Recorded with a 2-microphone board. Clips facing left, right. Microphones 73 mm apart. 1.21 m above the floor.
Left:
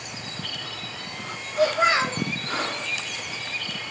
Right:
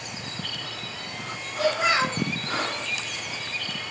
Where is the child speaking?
25° left (ahead or behind), 0.7 m.